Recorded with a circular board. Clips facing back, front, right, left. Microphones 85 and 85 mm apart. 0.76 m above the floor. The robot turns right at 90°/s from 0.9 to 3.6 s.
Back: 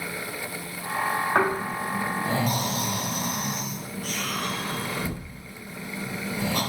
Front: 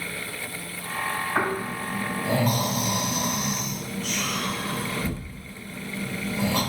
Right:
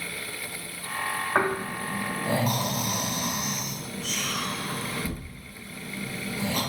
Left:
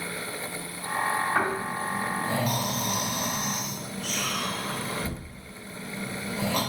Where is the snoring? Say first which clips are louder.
Back 2 dB, right 1 dB; 140° right, 1.8 m; by 6.6 s 65° left, 1.8 m.